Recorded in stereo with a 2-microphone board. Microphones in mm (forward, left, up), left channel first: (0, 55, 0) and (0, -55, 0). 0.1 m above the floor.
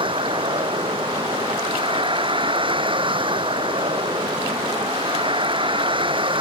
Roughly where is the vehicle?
Right.